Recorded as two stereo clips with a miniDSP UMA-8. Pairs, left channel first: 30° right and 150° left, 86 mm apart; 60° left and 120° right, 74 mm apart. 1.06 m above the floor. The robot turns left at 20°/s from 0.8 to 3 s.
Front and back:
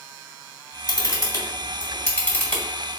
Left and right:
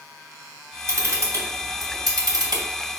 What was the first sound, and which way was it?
A camera shutter, 65° right.